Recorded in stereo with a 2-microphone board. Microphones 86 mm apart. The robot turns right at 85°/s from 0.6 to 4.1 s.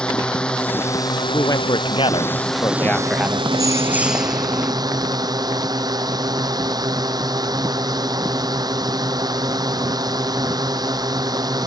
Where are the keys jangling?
60° right; by 4.7 s 10° right.